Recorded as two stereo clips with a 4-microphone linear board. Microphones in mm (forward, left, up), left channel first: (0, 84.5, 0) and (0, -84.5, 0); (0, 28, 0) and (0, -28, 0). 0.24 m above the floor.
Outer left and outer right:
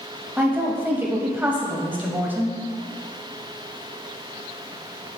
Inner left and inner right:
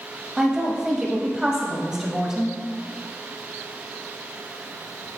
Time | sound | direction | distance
0.4 | a woman speaking | 10° right (ahead or behind) | 0.9 m